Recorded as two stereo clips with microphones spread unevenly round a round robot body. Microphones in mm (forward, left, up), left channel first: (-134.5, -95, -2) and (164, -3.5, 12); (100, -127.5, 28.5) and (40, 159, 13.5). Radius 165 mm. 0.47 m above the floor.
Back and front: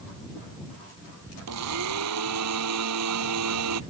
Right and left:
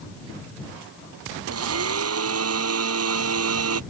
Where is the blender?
65° left.